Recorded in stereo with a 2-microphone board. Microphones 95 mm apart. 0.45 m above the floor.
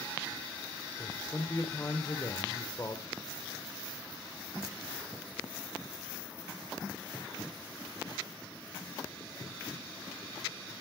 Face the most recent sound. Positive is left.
turn(degrees=35)  # may be behind; listen again after turning